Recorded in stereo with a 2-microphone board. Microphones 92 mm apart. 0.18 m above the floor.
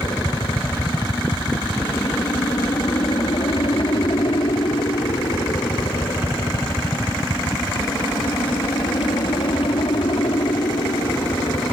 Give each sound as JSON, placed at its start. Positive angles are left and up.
{"t": 0.0, "sound": "a helicopter", "side_deg": 50}